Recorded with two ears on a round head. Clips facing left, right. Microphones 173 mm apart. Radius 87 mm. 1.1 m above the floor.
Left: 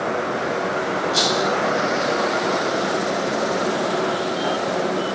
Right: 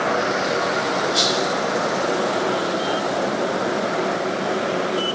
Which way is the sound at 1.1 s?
35° left (ahead or behind).